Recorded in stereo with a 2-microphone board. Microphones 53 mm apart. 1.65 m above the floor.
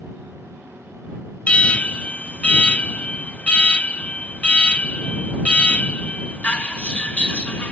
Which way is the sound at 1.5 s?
25° left (ahead or behind).